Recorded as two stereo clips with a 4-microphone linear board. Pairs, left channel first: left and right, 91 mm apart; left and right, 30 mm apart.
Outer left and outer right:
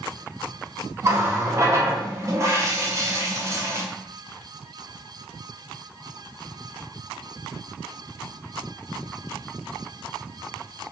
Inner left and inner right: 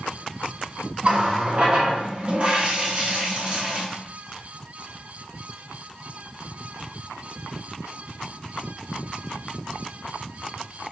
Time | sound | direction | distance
1.0 | a running tap | 35° right (ahead or behind) | 0.6 m